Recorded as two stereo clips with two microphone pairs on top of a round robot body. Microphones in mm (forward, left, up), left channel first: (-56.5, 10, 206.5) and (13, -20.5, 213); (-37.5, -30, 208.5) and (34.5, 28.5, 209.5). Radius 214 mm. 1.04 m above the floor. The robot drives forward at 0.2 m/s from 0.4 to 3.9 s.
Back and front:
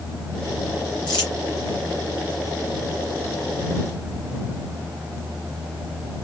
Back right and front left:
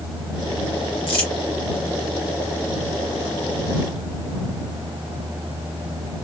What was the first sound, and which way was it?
Crumpling, 170° right.